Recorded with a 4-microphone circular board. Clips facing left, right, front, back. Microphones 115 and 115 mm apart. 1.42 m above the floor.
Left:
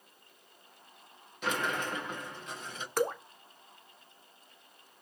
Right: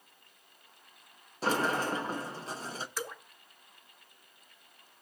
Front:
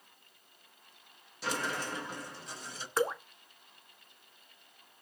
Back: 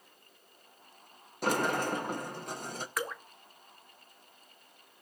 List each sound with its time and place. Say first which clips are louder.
1.4 s a sliding door: right 4 dB, back 6 dB; 145° right, 1.0 m
3.0 s dripping: left 15 dB, front 8 dB; 60° left, 0.7 m